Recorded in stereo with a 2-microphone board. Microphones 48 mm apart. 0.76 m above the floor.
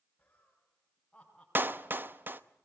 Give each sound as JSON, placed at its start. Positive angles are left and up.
{"t": 0.2, "sound": "laughter", "side_deg": 25, "distance_m": 5.0}
{"t": 1.6, "sound": "a clap", "side_deg": -40, "distance_m": 0.8}